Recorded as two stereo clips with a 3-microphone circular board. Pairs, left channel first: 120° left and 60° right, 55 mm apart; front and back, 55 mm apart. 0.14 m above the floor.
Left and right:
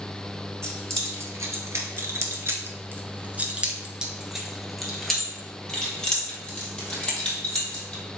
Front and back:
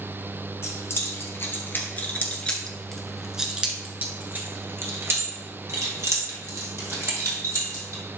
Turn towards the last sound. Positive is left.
turn(degrees=-170)